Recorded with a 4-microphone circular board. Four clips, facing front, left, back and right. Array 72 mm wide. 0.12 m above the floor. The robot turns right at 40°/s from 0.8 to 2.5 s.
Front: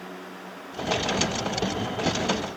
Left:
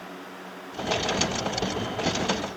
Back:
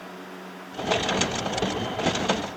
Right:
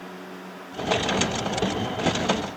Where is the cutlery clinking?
I don't hear cutlery clinking.